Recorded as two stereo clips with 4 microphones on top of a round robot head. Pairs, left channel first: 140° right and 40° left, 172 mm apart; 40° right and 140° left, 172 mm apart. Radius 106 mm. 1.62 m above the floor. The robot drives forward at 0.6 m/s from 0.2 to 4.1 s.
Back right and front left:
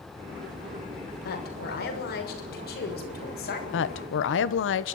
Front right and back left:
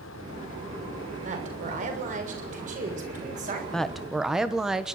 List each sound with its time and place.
1.2 s a woman speaking: 170° right, 6 m; by 3.6 s 175° right, 7.5 m
3.7 s a woman speaking: 130° right, 1.4 m; by 5.0 s 135° right, 1.6 m